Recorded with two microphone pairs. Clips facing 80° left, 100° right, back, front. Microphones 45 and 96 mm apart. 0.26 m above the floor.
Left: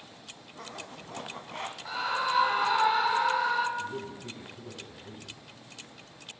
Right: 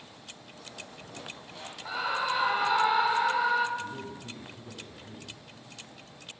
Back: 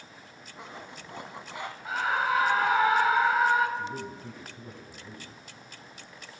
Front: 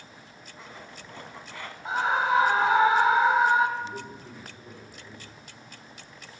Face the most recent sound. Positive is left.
turn(degrees=160)